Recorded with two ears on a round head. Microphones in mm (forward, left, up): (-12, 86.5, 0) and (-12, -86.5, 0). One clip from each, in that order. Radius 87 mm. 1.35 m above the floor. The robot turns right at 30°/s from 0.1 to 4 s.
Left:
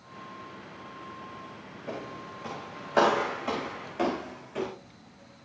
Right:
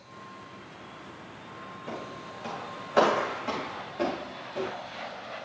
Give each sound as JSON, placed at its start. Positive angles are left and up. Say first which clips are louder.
{"t": 1.9, "sound": "footsteps", "louder": "left 2 dB", "side_deg": -40, "distance_m": 8.0}